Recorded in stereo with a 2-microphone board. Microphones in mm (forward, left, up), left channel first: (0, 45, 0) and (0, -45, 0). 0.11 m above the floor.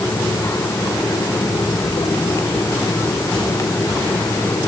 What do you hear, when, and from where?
Only background noise.